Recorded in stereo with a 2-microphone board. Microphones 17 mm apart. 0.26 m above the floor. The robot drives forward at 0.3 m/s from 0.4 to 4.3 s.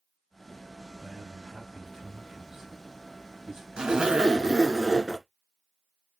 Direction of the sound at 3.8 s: 55° right (ahead or behind).